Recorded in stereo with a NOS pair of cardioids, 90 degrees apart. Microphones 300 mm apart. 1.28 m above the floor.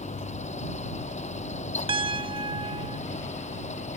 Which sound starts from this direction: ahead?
A piano, at 1.9 s.